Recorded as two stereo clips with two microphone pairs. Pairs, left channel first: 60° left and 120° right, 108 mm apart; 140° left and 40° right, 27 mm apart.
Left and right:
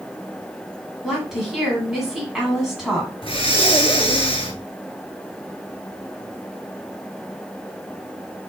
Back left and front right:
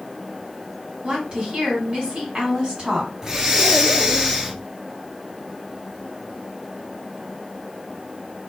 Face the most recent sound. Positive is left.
turn(degrees=25)